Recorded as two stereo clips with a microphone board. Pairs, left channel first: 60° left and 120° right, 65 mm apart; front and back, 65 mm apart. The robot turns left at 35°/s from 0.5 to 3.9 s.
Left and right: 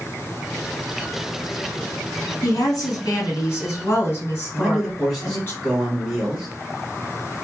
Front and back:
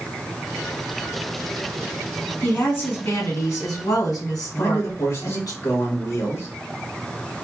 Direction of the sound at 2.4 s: 60° left.